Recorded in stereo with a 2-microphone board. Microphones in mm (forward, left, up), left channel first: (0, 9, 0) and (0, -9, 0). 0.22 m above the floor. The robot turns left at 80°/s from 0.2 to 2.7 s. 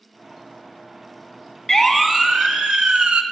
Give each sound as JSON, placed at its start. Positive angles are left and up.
{"t": 1.7, "sound": "a siren", "side_deg": 20, "distance_m": 2.0}